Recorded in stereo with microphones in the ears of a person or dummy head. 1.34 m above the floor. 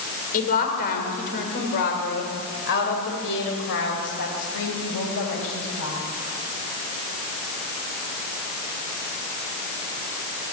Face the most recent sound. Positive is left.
turn(degrees=70)  # may be behind; listen again after turning